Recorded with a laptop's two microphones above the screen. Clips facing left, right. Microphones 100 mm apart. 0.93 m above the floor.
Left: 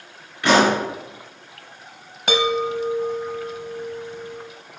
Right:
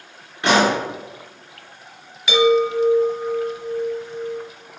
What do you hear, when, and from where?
0.4 s a pop: 30° right (ahead or behind), 3.5 m
2.3 s a chime: 50° left (ahead or behind), 1.1 m